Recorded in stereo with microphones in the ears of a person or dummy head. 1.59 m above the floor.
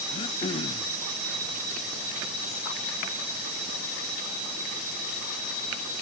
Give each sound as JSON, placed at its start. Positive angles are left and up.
{"t": 0.1, "sound": "throat clearing", "side_deg": 35, "distance_m": 0.5}